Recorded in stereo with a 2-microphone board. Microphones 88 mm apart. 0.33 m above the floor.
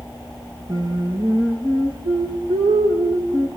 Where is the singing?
50° right (ahead or behind), 7.5 m.